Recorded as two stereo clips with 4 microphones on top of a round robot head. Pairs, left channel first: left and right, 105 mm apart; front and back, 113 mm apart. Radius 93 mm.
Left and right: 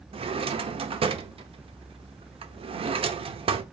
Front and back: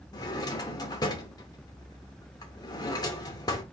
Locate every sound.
0.1 s a drawer: 60° right, 0.6 m